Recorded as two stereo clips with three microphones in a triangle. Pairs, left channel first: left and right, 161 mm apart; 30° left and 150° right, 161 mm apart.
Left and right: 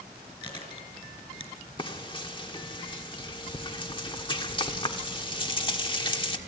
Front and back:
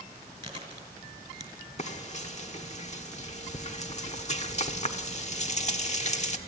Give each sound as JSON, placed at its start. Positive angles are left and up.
{"t": 0.4, "sound": "chewing", "azimuth_deg": 150, "distance_m": 4.0}
{"t": 1.8, "sound": "frying", "azimuth_deg": 45, "distance_m": 1.3}